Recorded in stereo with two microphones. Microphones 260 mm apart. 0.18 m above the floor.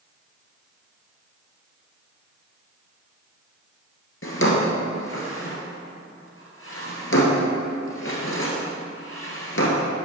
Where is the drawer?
50° left (ahead or behind), 1.7 m.